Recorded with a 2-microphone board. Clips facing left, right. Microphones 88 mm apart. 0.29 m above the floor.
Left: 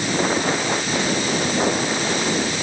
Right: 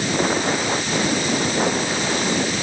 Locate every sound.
Only background noise.